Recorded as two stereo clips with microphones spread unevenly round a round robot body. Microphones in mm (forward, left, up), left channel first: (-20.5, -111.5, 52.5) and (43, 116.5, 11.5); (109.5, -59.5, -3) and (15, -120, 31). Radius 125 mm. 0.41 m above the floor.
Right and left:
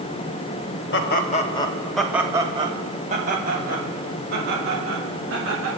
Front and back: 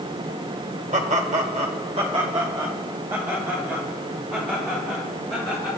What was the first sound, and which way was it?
Laughter, 145° right.